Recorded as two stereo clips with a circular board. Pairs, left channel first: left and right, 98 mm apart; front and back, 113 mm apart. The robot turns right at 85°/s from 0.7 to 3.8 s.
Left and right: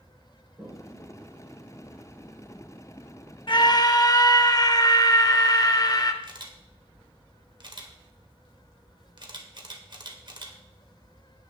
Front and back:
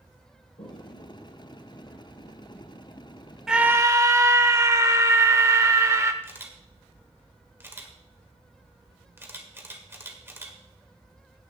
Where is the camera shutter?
110° right, 1.6 m.